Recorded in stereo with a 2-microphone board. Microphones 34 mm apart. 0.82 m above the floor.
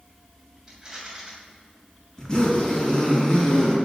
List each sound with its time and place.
0.7 s a rattle: 20° right (ahead or behind), 2.5 m
2.2 s a zipper: 20° left (ahead or behind), 4 m